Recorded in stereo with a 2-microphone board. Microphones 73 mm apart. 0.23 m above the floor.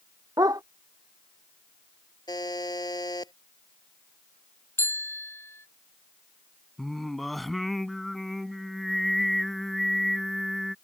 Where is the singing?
Centre (ahead or behind).